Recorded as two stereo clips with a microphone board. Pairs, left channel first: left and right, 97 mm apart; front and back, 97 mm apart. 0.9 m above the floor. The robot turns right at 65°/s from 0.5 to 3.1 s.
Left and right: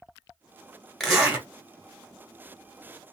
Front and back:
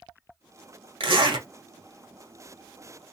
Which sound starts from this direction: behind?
A zipper, at 1.0 s.